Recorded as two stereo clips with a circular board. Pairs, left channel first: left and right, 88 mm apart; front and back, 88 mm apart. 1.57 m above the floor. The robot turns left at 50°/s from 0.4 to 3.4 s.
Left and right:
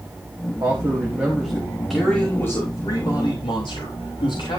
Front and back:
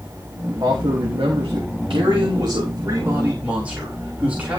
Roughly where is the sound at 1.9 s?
Behind.